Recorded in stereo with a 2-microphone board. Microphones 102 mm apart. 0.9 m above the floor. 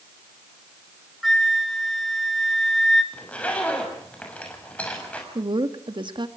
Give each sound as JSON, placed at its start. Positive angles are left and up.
{"t": 1.2, "sound": "a flute", "side_deg": 0, "distance_m": 1.5}
{"t": 3.1, "sound": "a zipper", "side_deg": 15, "distance_m": 6.5}
{"t": 5.3, "sound": "a woman speaking", "side_deg": -50, "distance_m": 1.6}